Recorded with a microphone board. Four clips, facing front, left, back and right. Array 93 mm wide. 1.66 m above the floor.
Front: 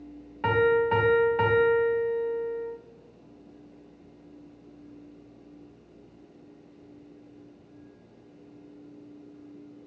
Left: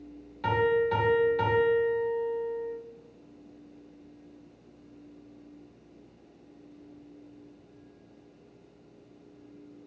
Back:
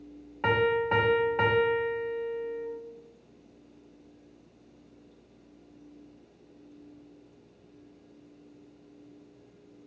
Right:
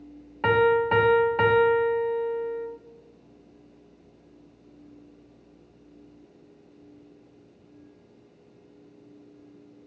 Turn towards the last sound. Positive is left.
turn(degrees=-105)